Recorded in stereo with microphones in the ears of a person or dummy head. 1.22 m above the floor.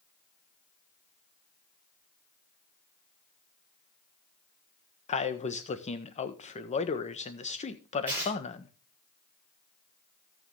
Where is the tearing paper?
10° right (ahead or behind), 7 m.